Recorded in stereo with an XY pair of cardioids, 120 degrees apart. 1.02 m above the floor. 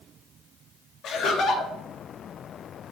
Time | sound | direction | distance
1.0 | laughter | 60° left | 0.8 m